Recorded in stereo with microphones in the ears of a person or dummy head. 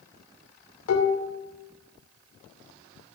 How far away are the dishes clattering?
About 3 m.